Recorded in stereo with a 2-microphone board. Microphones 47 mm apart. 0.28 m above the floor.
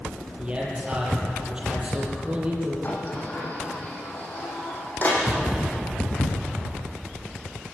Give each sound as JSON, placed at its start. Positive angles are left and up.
{"t": 0.4, "sound": "a man speaking", "side_deg": -20, "distance_m": 7.5}
{"t": 2.8, "sound": "a sliding door", "side_deg": 40, "distance_m": 6.0}